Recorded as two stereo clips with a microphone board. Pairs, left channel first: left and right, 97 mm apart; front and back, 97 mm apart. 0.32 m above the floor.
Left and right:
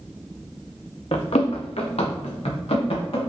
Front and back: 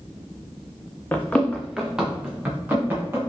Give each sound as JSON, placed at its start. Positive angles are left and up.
{"t": 1.1, "sound": "running footsteps", "azimuth_deg": 70, "distance_m": 0.9}